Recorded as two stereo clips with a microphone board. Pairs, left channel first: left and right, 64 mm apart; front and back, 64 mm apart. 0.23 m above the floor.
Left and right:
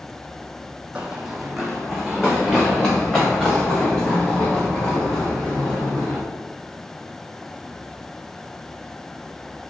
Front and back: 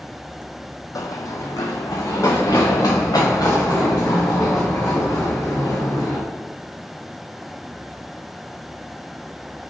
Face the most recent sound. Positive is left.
turn(degrees=25)